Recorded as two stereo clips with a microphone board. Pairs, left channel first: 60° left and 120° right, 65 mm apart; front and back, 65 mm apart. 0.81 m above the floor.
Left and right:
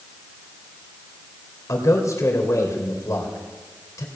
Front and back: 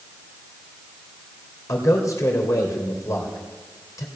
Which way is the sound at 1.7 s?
25° left.